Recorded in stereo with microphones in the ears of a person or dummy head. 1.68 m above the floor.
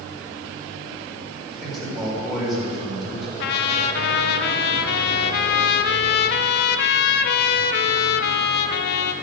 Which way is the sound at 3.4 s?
60° left (ahead or behind).